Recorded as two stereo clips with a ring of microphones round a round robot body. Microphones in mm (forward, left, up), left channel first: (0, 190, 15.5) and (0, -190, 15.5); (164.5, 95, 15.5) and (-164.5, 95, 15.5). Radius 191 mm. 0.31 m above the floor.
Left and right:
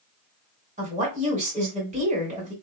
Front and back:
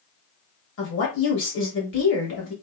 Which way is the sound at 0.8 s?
30° right.